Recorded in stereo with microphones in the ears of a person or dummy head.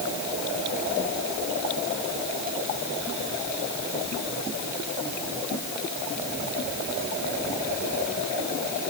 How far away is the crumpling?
No crumpling in this recording.